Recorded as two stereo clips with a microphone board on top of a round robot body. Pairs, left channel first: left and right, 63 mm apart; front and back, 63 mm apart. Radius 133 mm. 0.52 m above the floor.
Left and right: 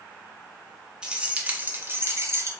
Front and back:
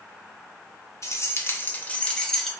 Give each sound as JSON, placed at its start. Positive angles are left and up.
{"t": 1.0, "sound": "keys jangling", "azimuth_deg": -20, "distance_m": 1.0}